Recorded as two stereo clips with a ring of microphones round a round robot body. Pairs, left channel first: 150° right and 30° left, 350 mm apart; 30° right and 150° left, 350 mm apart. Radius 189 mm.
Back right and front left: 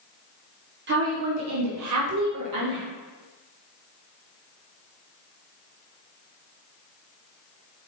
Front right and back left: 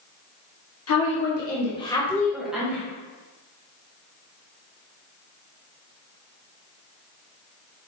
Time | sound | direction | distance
0.9 | a woman speaking | 15° right | 1.4 m